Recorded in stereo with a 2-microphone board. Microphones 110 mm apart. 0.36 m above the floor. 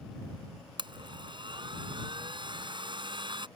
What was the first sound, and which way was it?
A blender, 45° right (ahead or behind).